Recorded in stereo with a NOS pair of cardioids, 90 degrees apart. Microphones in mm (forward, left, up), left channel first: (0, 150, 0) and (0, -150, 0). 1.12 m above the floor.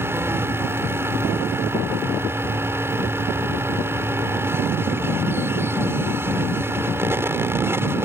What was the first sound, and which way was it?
A fan, 10° right.